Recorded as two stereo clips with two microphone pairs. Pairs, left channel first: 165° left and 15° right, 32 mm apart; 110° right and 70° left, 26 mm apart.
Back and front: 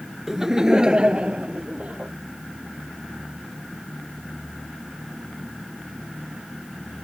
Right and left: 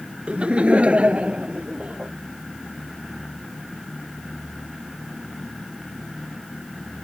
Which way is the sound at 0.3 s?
60° left.